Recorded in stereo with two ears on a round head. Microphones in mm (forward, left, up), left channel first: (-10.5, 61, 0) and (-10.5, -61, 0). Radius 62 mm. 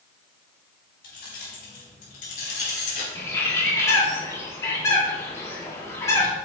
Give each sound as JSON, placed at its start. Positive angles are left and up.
{"t": 1.0, "sound": "keys jangling", "side_deg": 70, "distance_m": 4.0}
{"t": 3.1, "sound": "a bird", "side_deg": 20, "distance_m": 2.0}